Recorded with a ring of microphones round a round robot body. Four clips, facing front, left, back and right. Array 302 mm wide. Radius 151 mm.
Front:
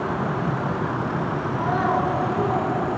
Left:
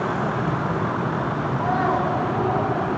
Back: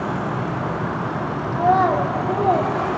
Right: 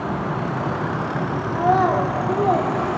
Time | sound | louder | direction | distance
1.5 | a child speaking | right 5 dB, back 7 dB | 150° right | 2 m